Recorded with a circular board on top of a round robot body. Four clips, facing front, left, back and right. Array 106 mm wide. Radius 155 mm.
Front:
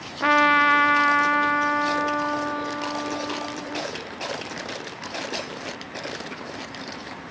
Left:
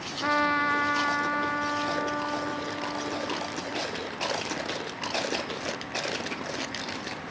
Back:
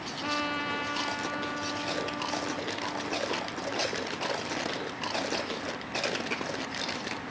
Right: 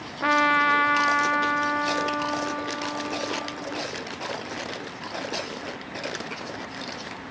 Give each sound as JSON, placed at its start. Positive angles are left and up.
{"t": 0.2, "sound": "a trumpet", "azimuth_deg": -15, "distance_m": 0.7}